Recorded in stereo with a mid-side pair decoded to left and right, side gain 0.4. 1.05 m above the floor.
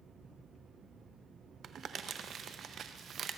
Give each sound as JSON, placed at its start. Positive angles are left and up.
{"t": 1.6, "sound": "crumpling", "azimuth_deg": -60, "distance_m": 0.6}